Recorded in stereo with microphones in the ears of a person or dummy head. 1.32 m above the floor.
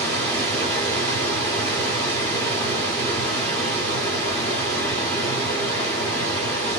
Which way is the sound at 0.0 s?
15° left (ahead or behind).